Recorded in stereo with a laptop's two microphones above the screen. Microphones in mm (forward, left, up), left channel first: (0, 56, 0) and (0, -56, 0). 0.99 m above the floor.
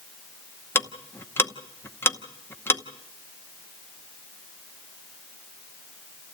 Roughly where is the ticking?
Left.